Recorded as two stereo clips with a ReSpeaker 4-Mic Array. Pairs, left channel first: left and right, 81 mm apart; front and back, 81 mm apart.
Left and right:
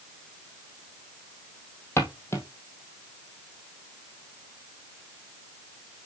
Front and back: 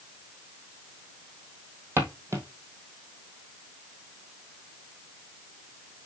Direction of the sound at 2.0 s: 135° left.